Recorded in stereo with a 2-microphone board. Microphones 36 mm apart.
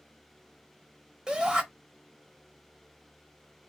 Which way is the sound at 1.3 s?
20° right (ahead or behind).